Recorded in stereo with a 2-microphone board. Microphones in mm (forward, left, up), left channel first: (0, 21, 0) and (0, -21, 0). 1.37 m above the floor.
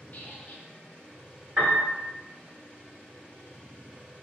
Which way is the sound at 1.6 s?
45° right (ahead or behind).